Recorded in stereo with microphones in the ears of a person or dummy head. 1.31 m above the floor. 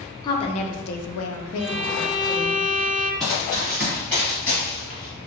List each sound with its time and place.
0.2 s a woman speaking: 20° left (ahead or behind), 0.6 m; by 2.6 s 55° left (ahead or behind), 1.0 m
1.6 s a violin: 40° right (ahead or behind), 1.1 m
3.2 s running footsteps: centre (ahead or behind), 1.9 m; by 5.3 s 30° left (ahead or behind), 1.4 m